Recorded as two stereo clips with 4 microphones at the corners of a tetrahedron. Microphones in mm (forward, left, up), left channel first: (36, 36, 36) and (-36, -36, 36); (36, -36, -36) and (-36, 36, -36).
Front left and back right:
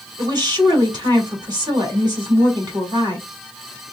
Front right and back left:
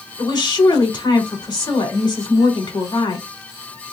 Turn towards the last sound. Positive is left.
turn(degrees=-90)